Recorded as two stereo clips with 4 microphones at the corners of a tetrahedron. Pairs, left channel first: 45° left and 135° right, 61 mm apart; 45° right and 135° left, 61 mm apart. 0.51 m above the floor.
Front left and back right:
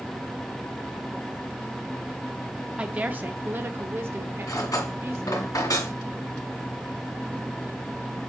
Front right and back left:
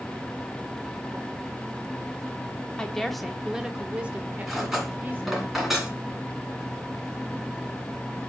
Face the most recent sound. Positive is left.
turn(degrees=50)